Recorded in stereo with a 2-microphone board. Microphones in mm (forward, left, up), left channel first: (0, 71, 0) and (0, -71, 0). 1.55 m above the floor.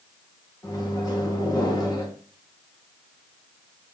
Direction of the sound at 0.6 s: 25° left (ahead or behind).